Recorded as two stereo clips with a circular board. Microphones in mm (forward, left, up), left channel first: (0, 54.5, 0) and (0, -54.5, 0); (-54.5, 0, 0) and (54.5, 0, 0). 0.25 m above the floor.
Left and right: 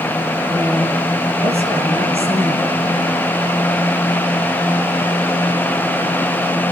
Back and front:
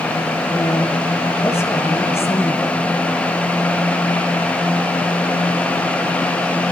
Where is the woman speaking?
115° right, 7 m.